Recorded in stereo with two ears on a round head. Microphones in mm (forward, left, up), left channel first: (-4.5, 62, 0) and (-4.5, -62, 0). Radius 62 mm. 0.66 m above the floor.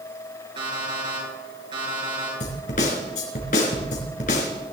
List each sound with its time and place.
0.6 s an alarm clock: 35° right (ahead or behind), 7 m
2.4 s a snare drum: 60° left (ahead or behind), 4 m